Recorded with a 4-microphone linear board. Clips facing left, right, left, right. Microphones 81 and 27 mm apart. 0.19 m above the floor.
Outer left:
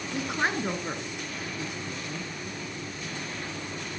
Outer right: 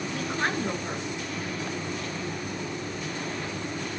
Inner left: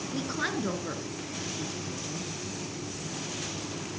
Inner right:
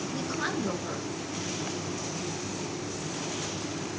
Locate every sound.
0.1 s a woman speaking: 15° left (ahead or behind), 2.5 m